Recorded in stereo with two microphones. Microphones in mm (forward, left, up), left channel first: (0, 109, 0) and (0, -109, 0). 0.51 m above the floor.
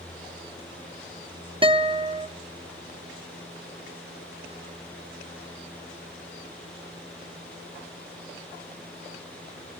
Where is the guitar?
25° right (ahead or behind), 0.8 m.